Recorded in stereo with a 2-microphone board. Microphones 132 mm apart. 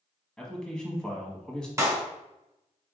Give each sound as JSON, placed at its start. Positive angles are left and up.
{"t": 0.4, "sound": "a man speaking", "side_deg": 5, "distance_m": 1.0}
{"t": 1.8, "sound": "a clap", "side_deg": -25, "distance_m": 1.2}